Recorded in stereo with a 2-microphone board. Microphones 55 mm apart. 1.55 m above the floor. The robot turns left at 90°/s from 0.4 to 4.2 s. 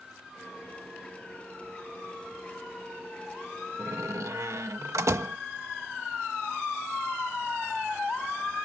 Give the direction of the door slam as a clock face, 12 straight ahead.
2 o'clock.